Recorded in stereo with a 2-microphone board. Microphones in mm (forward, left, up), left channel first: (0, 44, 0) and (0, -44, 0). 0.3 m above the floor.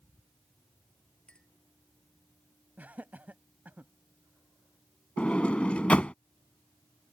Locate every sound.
1.3 s a clink: 10° left (ahead or behind)
2.8 s laughter: 20° right (ahead or behind)
5.2 s a sliding door: 15° left (ahead or behind)